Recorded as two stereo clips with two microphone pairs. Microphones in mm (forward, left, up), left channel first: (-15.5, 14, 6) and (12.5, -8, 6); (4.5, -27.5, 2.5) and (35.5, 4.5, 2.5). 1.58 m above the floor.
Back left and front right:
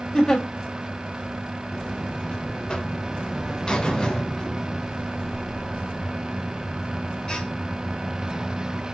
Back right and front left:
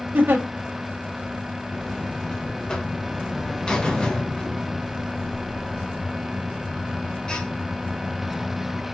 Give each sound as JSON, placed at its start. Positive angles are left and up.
{"t": 0.1, "sound": "a giggle", "azimuth_deg": 75, "distance_m": 1.4}
{"t": 1.7, "sound": "a buzzer", "azimuth_deg": 180, "distance_m": 0.8}